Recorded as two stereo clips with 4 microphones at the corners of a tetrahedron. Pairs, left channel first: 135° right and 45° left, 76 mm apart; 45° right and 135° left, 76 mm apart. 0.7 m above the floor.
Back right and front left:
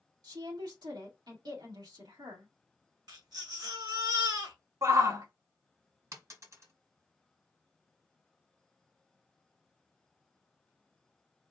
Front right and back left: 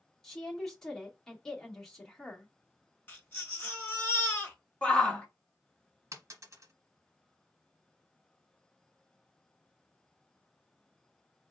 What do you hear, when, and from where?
0.2 s a woman speaking: 35° left, 1.8 m
3.1 s a baby crying: 20° left, 1.7 m
4.8 s a shout: 20° left, 1.3 m
6.1 s a dropped coin: 90° left, 1.4 m